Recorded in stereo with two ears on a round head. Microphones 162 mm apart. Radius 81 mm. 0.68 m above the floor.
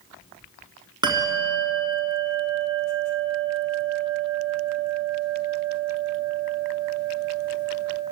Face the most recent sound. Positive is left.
turn(degrees=-20)  # may be behind; listen again after turning